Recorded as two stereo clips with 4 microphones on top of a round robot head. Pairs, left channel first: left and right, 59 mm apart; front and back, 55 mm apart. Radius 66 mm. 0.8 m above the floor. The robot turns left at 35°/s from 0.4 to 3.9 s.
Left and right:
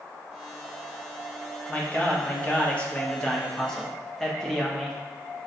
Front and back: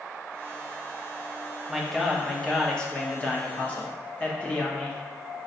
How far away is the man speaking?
About 1.0 m.